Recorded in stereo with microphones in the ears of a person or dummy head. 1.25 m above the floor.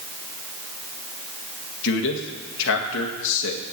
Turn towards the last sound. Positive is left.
turn(degrees=70)  # may be behind; listen again after turning